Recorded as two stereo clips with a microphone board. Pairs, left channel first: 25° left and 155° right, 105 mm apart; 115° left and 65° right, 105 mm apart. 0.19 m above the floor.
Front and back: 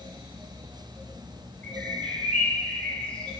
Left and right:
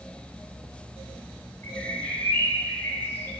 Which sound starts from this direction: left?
A bird, at 1.6 s.